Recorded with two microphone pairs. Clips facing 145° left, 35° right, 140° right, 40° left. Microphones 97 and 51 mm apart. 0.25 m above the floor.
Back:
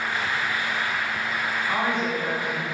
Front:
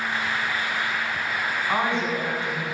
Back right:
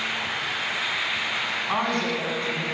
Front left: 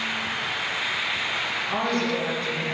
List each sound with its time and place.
1.7 s a woman speaking: 95° right, 2 m